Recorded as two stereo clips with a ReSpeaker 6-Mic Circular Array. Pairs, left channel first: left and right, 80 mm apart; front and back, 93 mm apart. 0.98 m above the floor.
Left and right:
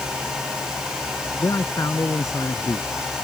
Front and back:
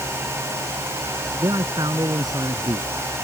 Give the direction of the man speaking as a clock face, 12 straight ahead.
7 o'clock.